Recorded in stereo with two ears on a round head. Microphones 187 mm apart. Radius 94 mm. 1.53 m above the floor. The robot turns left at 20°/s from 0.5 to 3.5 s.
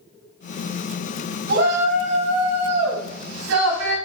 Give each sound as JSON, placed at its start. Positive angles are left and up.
{"t": 1.5, "sound": "a shout", "azimuth_deg": -55, "distance_m": 3.0}